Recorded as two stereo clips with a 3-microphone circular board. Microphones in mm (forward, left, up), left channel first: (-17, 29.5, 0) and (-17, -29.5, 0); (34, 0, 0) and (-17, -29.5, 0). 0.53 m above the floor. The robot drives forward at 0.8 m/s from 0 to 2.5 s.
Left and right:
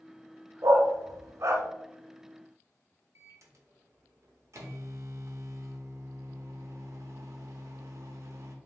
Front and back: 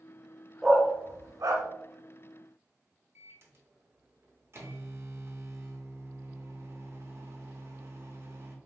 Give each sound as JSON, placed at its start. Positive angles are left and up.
{"t": 0.6, "sound": "a dog barking", "azimuth_deg": -65, "distance_m": 0.6}
{"t": 3.1, "sound": "a microwave", "azimuth_deg": -115, "distance_m": 0.9}